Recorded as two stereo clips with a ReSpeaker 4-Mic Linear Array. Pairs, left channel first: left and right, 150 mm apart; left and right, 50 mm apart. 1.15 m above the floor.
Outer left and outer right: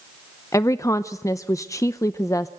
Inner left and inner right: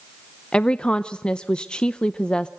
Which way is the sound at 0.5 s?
20° left (ahead or behind).